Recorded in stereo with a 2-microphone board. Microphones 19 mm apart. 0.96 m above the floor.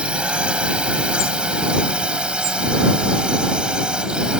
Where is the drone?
80° right; by 4.4 s 65° right (ahead or behind).